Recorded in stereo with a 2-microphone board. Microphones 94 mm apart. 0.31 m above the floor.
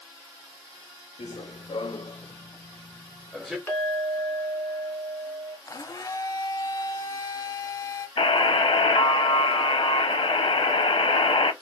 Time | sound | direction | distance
1.2 | running footsteps | 80° left | 1.5 m
3.7 | a clink | 20° left (ahead or behind) | 2.5 m
5.7 | a blender | 40° left (ahead or behind) | 0.5 m
8.2 | a buzzer | 65° left (ahead or behind) | 0.6 m